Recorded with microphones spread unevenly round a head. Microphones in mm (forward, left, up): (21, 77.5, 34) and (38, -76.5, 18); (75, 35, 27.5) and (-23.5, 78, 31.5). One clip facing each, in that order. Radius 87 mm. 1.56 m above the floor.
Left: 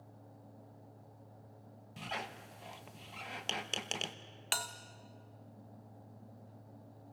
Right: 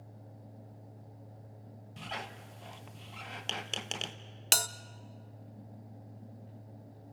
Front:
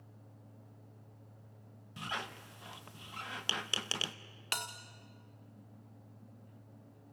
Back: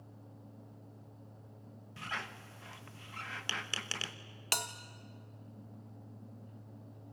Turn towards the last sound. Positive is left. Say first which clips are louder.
# right 5 dB, back 2 dB
turn(degrees=-135)